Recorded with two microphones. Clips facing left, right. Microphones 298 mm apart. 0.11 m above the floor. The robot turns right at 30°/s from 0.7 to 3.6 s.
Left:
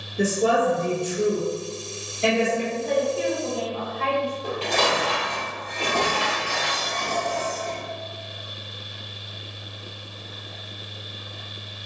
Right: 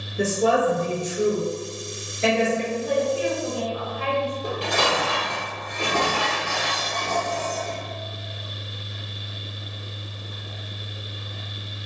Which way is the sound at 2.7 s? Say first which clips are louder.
Even; 5° right (ahead or behind).